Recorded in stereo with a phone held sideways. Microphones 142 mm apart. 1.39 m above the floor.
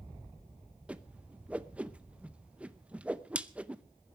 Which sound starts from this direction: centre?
A whoosh, at 0.9 s.